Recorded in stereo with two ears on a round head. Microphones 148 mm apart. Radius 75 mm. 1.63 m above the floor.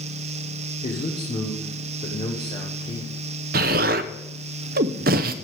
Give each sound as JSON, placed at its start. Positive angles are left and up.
{"t": 0.8, "sound": "a man speaking", "side_deg": 35, "distance_m": 1.5}
{"t": 3.5, "sound": "an explosion", "side_deg": -55, "distance_m": 0.7}